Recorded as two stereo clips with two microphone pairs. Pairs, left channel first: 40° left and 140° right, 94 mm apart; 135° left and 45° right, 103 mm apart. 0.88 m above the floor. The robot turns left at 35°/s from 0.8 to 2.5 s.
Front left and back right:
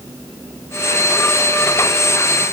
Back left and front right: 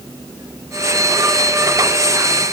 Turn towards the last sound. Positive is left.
No sound to turn to.